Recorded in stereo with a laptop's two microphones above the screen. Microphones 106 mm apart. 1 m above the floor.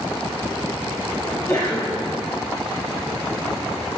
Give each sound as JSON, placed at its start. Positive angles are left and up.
{"t": 1.2, "sound": "a sneeze", "side_deg": 30, "distance_m": 2.0}